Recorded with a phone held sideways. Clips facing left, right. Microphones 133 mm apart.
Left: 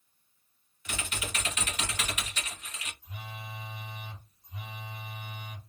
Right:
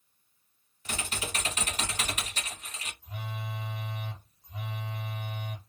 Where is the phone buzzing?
65° right (ahead or behind), 1.1 m.